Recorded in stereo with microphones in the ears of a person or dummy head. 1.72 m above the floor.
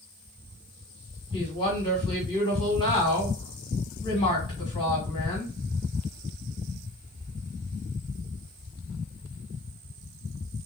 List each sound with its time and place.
1.3 s a woman speaking: 25° left (ahead or behind), 1.8 m